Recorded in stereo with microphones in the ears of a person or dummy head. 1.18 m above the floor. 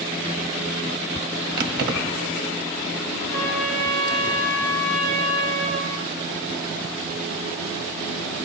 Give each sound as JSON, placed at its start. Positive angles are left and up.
{"t": 1.6, "sound": "keys jangling", "side_deg": -55, "distance_m": 1.4}
{"t": 3.3, "sound": "a trumpet", "side_deg": -60, "distance_m": 7.5}